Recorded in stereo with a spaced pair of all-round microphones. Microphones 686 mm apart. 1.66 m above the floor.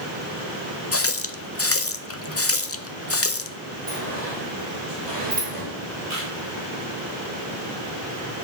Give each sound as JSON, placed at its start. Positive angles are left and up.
{"t": 0.9, "sound": "a running tap", "side_deg": 20, "distance_m": 0.6}
{"t": 3.9, "sound": "a sliding door", "side_deg": -75, "distance_m": 3.5}
{"t": 6.1, "sound": "a camera shutter", "side_deg": -60, "distance_m": 5.0}